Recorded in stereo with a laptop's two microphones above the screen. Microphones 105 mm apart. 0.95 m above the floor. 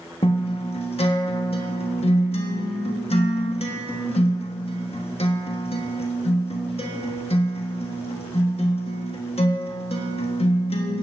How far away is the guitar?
About 1.3 m.